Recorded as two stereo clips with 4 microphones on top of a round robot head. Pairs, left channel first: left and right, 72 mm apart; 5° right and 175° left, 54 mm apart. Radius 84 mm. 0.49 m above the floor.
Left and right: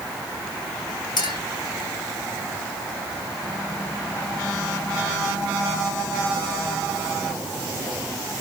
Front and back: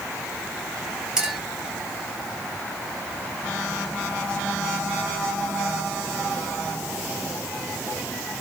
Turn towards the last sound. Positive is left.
turn(degrees=95)